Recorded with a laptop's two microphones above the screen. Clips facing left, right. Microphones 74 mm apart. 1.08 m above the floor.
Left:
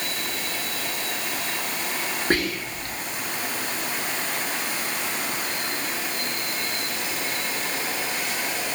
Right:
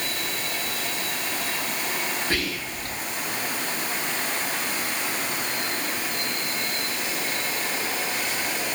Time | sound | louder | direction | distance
2.3 | whispering | left 4 dB | 45° left (ahead or behind) | 0.8 m